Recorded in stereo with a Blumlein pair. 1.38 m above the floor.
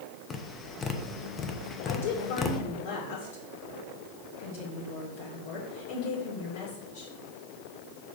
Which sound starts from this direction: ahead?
Tapping, at 0.3 s.